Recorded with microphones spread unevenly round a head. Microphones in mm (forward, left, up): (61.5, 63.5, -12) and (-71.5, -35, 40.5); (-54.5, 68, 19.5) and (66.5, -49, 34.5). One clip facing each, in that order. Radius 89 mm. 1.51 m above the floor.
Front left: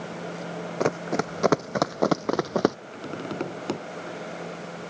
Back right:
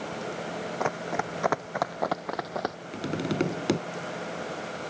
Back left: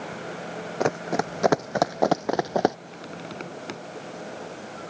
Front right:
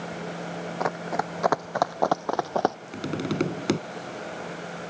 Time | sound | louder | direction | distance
0.8 | running footsteps | front left 6 dB, back left 4 dB | 80° left | ?
2.9 | tapping | back right 4 dB, front right 10 dB | 75° right | ?